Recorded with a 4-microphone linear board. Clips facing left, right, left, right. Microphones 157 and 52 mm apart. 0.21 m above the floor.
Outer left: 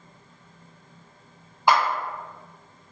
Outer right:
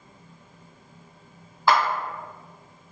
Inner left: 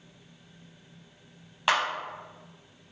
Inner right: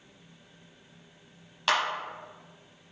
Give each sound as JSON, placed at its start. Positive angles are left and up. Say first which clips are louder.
{"t": 1.7, "sound": "a clap", "louder": "even, inner left 1 dB", "side_deg": 20, "distance_m": 1.0}